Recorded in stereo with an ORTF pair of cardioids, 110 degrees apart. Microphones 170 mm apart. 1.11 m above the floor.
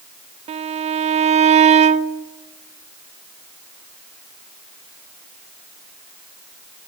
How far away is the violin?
About 1.1 m.